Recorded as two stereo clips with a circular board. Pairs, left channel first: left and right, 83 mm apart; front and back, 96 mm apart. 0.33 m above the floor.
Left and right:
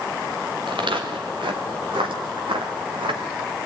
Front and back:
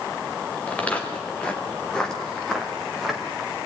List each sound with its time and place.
0.7 s footsteps: 75° right, 4 m; by 3.5 s 95° right, 3 m